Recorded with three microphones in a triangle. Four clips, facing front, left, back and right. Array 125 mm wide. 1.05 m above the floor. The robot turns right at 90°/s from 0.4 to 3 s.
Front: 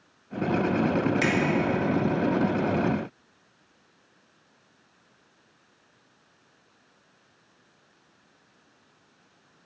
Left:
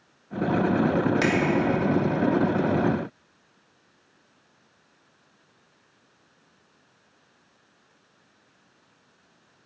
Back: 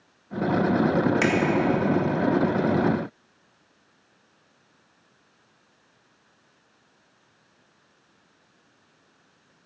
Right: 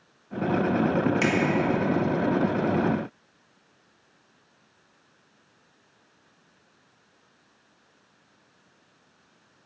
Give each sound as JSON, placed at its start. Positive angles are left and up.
{"t": 1.2, "sound": "a finger snap", "azimuth_deg": 155, "distance_m": 1.0}